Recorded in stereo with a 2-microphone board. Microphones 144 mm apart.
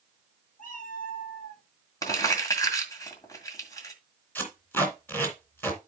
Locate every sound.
0.6 s a cat meowing: 70° left (ahead or behind), 3.5 m; by 1.6 s 80° left, 3.5 m
2.0 s crumpling: 25° left (ahead or behind), 1.8 m
4.3 s tape being pulled: 15° left (ahead or behind), 2.5 m